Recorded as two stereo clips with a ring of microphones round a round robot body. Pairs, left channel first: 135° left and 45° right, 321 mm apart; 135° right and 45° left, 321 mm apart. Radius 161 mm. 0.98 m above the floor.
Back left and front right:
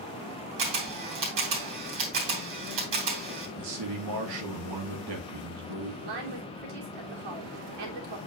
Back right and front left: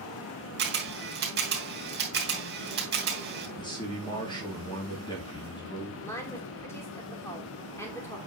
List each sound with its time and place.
0.6 s a camera shutter: 15° right, 3.5 m
3.6 s a man speaking: 60° right, 2.5 m
6.0 s a woman speaking: 50° right, 2.5 m